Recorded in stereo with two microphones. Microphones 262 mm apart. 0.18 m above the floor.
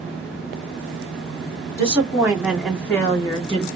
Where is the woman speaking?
25° right (ahead or behind), 1.5 m; by 3.6 s 25° left (ahead or behind), 1.6 m.